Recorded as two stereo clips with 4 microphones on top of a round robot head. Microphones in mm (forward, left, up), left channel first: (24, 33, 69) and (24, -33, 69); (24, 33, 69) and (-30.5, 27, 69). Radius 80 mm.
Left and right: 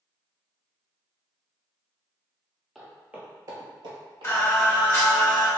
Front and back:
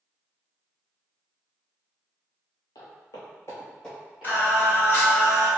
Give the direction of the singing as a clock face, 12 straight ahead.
10 o'clock.